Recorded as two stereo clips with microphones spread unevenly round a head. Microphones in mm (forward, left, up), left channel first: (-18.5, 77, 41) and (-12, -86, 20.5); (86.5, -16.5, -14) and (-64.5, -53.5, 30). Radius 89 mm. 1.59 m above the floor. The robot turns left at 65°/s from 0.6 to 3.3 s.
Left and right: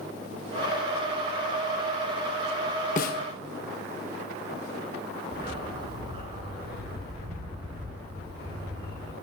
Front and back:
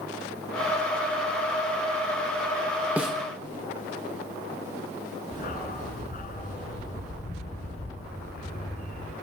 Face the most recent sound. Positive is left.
turn(degrees=-25)